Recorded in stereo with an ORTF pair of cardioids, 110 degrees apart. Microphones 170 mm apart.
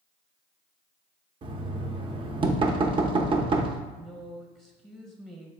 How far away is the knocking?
About 0.7 m.